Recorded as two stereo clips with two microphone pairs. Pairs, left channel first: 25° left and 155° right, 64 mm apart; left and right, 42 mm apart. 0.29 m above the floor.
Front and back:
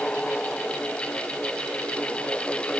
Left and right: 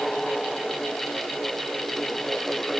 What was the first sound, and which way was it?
Only background noise.